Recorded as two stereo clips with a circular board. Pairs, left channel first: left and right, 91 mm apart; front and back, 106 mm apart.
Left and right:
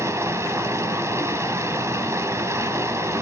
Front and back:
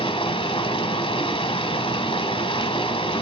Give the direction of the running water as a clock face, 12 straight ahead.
1 o'clock.